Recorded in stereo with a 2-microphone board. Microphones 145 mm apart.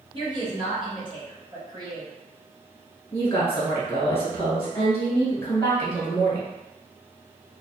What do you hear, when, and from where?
0.1 s a woman speaking: 30° right (ahead or behind), 1.3 m
3.1 s a woman speaking: 20° left (ahead or behind), 1.2 m